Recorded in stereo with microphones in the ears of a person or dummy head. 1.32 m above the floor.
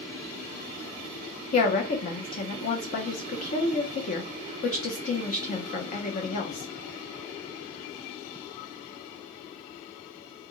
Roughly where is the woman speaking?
Left.